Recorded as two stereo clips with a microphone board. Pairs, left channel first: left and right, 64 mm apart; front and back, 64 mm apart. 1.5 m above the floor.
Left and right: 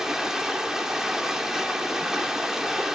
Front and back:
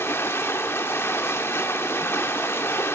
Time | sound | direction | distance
0.0 | running water | 10° right | 1.3 m